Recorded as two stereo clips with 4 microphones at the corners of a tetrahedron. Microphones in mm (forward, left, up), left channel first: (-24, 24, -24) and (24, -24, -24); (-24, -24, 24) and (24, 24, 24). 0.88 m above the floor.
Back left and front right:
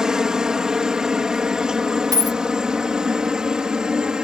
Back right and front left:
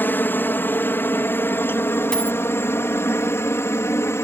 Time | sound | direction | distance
0.0 | a helicopter | 115° right | ?
2.1 | a dropped coin | 55° right | ?